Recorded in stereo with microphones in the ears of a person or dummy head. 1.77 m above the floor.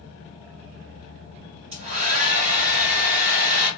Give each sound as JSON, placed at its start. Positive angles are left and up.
{"t": 1.7, "sound": "a hair dryer", "side_deg": -60, "distance_m": 2.0}